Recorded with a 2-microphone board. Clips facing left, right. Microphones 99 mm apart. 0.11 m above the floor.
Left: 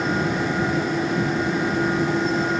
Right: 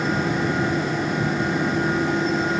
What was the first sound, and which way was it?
Only background noise.